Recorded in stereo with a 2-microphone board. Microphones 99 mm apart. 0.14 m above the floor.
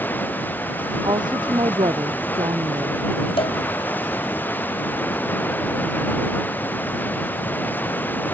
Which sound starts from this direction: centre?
Running water, at 0.0 s.